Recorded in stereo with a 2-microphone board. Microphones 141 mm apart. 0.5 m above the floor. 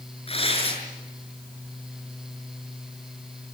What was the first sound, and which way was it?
Tearing paper, 45° left (ahead or behind).